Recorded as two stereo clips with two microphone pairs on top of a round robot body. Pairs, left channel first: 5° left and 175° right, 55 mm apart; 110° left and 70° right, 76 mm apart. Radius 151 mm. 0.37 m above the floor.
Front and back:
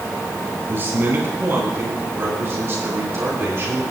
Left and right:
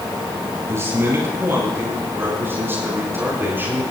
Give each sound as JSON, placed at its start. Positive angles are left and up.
{"t": 0.7, "sound": "a man speaking", "azimuth_deg": -125, "distance_m": 9.5}